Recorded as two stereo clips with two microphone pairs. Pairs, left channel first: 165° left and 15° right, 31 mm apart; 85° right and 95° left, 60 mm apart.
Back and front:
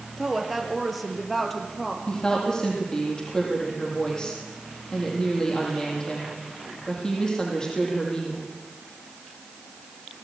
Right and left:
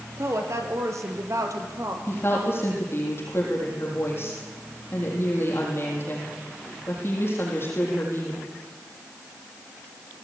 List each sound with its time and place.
0.2 s a woman speaking: 70° left, 3 m; by 2.0 s 90° left, 3.5 m
2.1 s a woman speaking: 130° right, 6 m